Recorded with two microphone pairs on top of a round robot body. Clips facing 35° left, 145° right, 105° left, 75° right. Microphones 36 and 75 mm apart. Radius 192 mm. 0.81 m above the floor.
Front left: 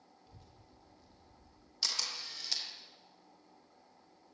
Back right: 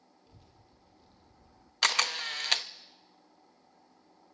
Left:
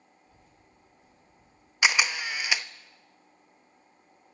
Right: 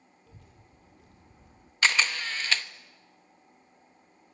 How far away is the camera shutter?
About 0.9 m.